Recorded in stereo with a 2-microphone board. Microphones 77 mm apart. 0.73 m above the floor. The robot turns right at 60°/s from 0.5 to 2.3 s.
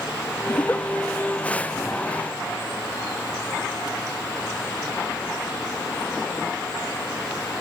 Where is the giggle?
35° left (ahead or behind); by 0.9 s 15° left (ahead or behind).